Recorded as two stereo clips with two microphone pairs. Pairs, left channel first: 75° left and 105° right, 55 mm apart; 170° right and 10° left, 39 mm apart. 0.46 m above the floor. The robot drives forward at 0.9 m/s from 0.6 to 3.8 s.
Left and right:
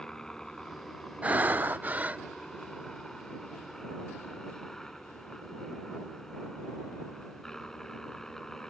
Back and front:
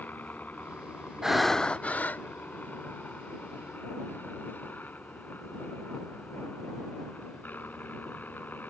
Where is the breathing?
60° right; by 2.2 s 155° right.